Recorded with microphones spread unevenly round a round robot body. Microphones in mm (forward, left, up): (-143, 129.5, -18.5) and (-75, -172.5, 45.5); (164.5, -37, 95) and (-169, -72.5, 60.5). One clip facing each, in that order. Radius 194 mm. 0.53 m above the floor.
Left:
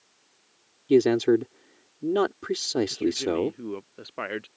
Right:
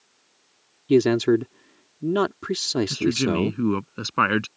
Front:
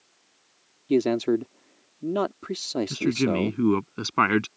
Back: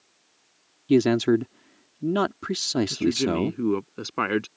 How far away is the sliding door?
No sliding door in this recording.